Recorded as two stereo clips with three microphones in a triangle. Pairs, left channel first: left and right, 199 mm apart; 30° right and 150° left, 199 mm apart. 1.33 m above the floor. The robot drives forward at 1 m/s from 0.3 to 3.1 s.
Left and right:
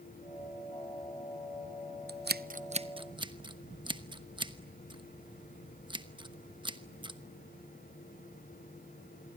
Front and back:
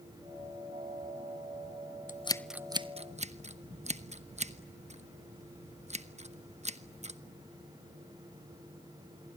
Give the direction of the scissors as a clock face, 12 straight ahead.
2 o'clock.